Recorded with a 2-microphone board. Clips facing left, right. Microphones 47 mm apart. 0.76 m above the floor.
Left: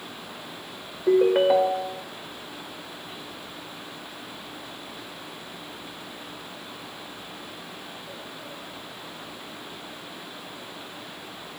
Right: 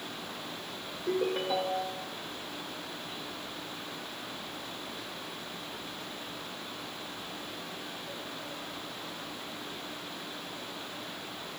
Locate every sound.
1.1 s a ringtone: 60° left (ahead or behind), 1.1 m